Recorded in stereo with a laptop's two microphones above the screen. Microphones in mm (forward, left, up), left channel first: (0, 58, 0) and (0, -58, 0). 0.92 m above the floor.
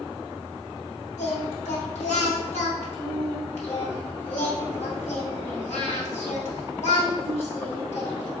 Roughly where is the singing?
Left.